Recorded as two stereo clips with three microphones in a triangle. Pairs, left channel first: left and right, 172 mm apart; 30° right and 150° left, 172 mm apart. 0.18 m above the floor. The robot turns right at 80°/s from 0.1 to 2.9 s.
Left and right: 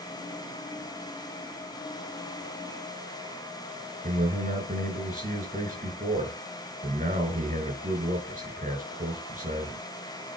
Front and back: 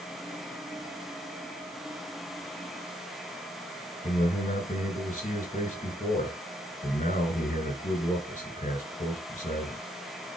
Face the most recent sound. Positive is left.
turn(degrees=-70)